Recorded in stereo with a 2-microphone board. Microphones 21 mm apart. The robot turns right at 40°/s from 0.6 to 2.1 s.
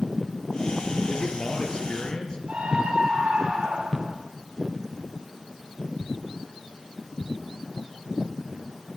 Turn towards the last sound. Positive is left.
turn(degrees=-60)  # may be behind; listen again after turning